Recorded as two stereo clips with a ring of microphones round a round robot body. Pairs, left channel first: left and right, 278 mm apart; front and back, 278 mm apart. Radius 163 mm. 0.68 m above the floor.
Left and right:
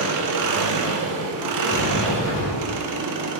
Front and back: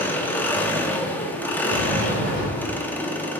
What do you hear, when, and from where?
0.0 s an engine running: 85° right, 0.8 m
1.7 s a sliding door: 145° left, 2.5 m